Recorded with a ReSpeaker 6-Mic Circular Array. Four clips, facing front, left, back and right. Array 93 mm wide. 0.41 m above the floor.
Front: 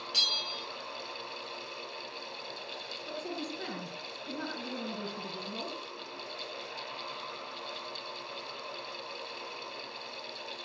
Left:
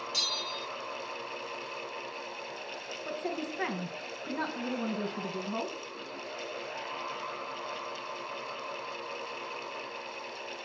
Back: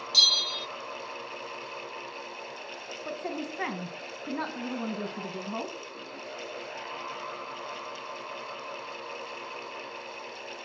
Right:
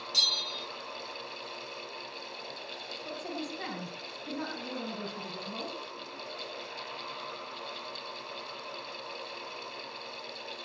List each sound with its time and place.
0.1 s a bell: 10° left, 0.8 m
3.0 s a woman speaking: 155° left, 4 m